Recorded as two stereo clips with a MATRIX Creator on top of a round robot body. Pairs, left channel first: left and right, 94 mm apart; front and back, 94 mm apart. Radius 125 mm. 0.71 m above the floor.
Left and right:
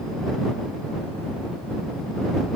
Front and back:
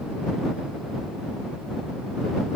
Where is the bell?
I don't hear a bell.